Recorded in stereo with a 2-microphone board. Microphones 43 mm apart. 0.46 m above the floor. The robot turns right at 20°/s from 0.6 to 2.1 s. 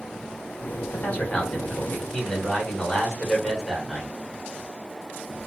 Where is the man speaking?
35° left (ahead or behind), 1.5 m; by 4.2 s 15° left (ahead or behind), 1.5 m.